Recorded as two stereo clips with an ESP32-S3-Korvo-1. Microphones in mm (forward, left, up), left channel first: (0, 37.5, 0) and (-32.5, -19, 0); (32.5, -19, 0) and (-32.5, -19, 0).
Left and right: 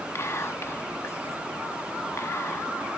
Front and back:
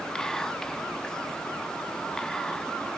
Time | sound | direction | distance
0.1 | whispering | 75° left | 1.0 m